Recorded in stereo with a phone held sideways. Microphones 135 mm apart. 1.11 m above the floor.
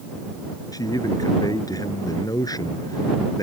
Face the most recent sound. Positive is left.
turn(degrees=25)  # may be behind; listen again after turning